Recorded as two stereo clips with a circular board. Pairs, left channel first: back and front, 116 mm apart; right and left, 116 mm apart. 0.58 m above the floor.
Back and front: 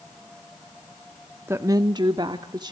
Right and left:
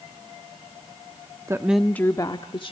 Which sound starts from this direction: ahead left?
A woman speaking, at 1.5 s.